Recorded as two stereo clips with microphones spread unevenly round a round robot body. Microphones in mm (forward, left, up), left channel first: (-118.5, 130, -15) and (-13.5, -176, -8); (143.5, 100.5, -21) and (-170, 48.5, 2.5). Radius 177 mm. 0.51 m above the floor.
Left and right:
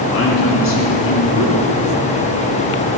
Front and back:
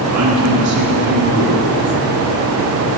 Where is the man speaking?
160° left, 5 m.